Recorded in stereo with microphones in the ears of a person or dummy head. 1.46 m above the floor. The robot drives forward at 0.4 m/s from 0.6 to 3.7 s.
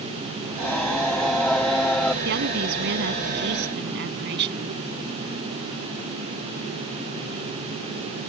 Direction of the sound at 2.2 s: 60° right (ahead or behind).